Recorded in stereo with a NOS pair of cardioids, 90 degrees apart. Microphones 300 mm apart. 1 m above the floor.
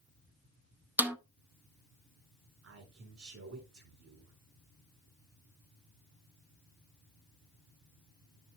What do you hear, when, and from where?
1.0 s a snare drum: 5° right, 0.8 m
2.6 s a man speaking: 55° right, 3.5 m